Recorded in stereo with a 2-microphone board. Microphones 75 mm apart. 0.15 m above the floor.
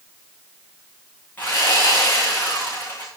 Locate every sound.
1.4 s sawing: 25° left (ahead or behind), 7.5 m